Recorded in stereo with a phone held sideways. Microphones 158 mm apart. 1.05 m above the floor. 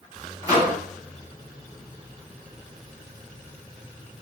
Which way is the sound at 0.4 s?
25° right (ahead or behind).